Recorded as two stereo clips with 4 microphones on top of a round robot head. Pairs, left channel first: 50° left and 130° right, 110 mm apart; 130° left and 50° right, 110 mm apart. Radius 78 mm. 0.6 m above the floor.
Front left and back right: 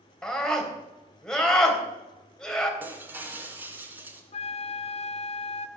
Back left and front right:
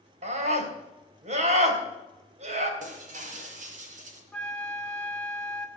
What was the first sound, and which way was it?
A scream, 35° right.